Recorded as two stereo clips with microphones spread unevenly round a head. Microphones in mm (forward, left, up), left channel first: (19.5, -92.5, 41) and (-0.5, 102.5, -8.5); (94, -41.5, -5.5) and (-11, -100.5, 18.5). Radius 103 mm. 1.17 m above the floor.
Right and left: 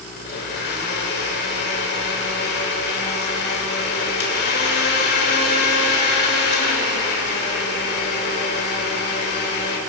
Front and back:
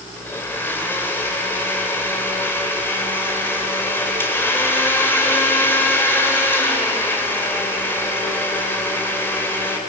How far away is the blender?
About 4 m.